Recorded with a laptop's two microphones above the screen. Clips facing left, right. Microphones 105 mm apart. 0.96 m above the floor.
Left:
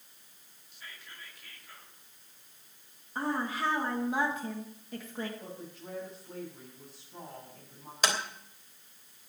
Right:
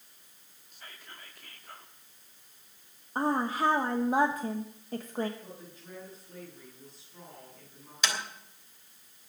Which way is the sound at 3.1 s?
35° right (ahead or behind).